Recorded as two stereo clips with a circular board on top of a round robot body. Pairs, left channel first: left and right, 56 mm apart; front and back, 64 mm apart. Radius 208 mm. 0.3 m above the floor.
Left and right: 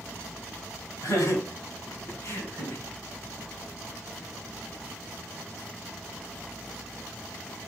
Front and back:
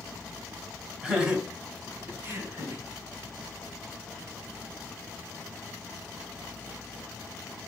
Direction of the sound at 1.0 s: 100° left.